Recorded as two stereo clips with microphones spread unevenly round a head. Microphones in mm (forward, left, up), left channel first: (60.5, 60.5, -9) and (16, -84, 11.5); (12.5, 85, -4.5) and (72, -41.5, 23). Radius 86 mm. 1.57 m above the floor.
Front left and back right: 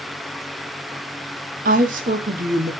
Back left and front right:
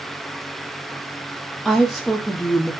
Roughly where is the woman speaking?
Behind right.